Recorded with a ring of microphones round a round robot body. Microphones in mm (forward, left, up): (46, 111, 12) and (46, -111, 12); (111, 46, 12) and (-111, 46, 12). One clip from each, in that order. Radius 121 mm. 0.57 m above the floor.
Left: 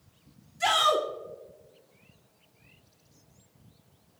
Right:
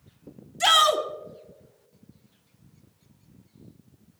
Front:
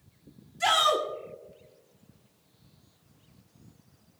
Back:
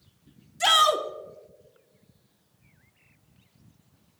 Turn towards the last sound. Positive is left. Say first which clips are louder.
# right 4 dB, back 3 dB
turn(degrees=-130)